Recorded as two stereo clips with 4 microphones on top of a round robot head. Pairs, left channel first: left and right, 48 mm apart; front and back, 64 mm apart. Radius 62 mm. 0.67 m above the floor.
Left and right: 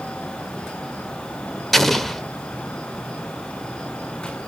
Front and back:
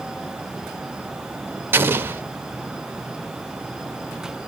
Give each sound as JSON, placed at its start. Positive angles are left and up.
{"t": 1.7, "sound": "an explosion", "azimuth_deg": 175, "distance_m": 0.9}